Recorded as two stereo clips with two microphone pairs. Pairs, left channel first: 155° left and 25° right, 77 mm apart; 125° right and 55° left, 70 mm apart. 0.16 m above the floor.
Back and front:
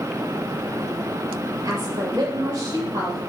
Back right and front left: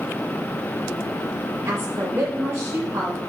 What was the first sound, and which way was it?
A woman speaking, 5° left.